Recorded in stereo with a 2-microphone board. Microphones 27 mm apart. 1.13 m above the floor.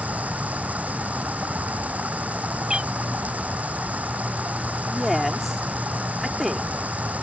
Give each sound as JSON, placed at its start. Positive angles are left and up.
{"t": 0.0, "sound": "running water", "side_deg": -80}
{"t": 2.7, "sound": "a cat meowing", "side_deg": -30}
{"t": 4.9, "sound": "a woman speaking", "side_deg": -5}